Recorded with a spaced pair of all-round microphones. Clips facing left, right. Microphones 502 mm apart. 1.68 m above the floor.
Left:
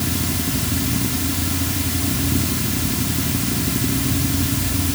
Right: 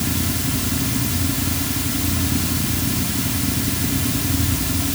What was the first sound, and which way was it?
Only background noise.